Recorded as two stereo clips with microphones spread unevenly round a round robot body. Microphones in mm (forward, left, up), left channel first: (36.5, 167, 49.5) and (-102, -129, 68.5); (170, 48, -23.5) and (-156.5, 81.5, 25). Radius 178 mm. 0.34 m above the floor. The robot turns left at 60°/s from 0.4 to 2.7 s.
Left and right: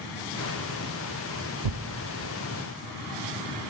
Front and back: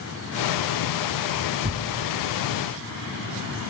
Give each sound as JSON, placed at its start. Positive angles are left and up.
{"t": 1.6, "sound": "tearing paper", "azimuth_deg": -105, "distance_m": 0.6}